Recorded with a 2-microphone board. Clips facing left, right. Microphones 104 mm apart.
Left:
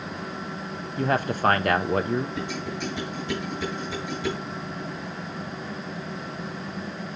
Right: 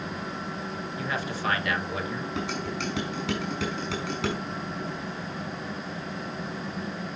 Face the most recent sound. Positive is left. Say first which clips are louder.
# even
turn(degrees=-80)